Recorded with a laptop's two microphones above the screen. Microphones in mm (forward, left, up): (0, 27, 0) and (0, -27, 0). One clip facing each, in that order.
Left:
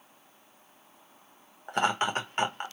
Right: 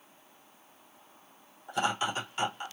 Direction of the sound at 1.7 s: 50° left (ahead or behind).